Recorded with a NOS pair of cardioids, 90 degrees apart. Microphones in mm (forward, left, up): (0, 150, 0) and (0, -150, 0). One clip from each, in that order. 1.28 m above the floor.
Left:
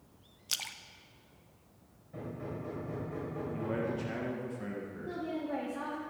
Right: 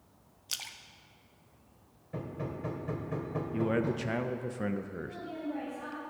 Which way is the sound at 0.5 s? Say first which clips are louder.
Left 2 dB; 10° left.